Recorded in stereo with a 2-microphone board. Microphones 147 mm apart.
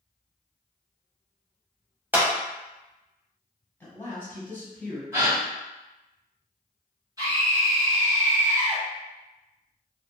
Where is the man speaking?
15° left (ahead or behind), 1.3 m.